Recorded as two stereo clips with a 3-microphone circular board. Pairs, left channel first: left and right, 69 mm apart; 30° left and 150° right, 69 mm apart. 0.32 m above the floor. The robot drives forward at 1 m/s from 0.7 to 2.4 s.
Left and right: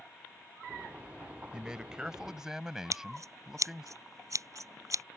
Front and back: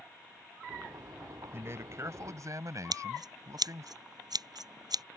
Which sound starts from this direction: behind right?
Scissors, at 2.9 s.